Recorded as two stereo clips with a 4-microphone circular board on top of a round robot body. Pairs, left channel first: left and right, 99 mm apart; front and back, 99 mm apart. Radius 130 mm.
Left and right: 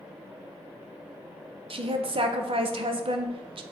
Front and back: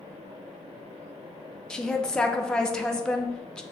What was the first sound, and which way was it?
A woman speaking, 80° right.